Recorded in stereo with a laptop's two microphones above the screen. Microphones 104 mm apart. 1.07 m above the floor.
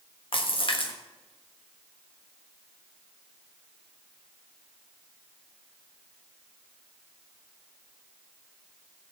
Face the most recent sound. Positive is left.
turn(degrees=55)  # may be behind; listen again after turning